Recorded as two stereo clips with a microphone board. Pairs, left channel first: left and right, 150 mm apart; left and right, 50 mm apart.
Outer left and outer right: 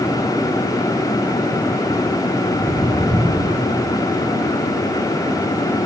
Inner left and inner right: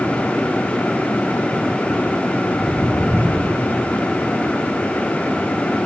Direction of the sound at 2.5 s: 35° left (ahead or behind).